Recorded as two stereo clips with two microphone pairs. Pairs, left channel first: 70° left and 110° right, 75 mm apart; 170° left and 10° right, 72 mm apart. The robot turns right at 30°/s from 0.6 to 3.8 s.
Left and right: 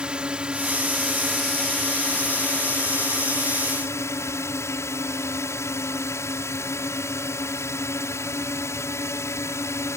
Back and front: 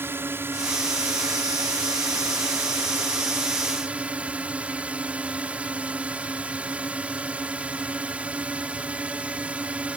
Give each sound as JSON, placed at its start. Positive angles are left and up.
{"t": 0.0, "sound": "a drone", "azimuth_deg": -45}